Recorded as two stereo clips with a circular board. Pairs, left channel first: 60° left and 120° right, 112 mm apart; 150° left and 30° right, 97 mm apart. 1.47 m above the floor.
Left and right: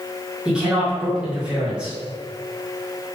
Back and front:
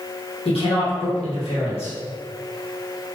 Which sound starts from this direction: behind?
A woman speaking, at 0.5 s.